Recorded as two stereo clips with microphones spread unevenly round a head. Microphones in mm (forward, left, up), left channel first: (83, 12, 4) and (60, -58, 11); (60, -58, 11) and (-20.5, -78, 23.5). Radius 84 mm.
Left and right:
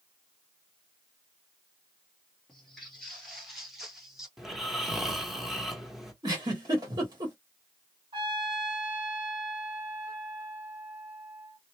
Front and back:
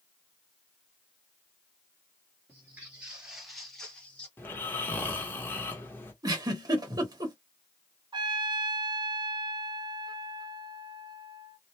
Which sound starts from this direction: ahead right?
Snoring, at 4.4 s.